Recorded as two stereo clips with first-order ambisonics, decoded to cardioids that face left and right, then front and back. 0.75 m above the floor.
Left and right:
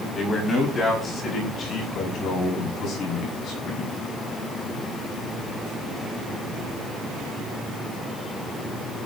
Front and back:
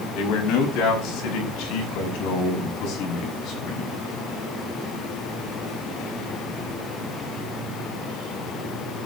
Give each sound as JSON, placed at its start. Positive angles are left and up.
{"t": 0.1, "sound": "a man speaking", "azimuth_deg": 20, "distance_m": 5.5}